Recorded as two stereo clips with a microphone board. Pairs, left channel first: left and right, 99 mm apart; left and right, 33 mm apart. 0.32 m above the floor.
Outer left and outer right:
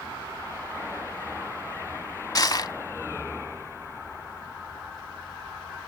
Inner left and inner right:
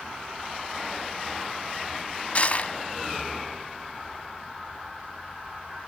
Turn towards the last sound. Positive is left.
turn(degrees=40)  # may be behind; listen again after turning